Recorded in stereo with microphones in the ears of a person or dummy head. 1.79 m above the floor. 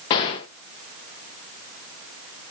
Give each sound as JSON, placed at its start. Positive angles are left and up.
{"t": 0.1, "sound": "a gunshot", "side_deg": 30, "distance_m": 1.1}